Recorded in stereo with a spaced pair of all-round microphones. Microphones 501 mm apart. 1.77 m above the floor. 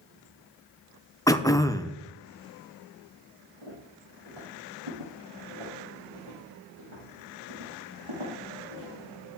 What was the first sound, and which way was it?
Throat clearing, 5° left (ahead or behind).